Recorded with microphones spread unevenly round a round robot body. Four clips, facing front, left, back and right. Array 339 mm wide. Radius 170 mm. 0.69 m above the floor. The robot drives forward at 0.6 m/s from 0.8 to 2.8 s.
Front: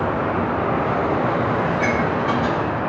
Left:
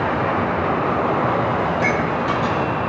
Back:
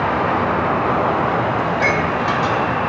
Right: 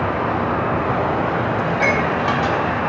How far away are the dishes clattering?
About 3 m.